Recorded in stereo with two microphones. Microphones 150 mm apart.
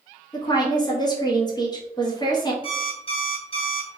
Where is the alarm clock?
35° left (ahead or behind), 1.6 m.